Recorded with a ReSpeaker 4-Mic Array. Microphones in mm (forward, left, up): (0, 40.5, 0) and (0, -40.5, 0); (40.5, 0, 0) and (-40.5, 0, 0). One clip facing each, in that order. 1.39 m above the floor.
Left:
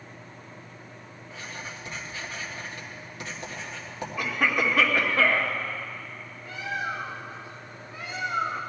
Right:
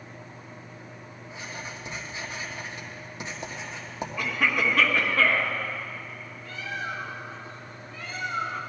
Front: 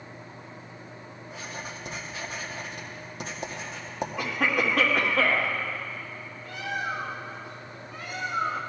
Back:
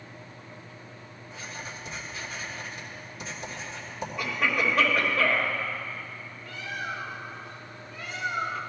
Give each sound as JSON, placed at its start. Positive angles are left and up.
{"t": 1.3, "sound": "writing", "azimuth_deg": -20, "distance_m": 1.7}
{"t": 4.2, "sound": "a cough", "azimuth_deg": 10, "distance_m": 2.5}
{"t": 6.5, "sound": "a bird", "azimuth_deg": 20, "distance_m": 1.3}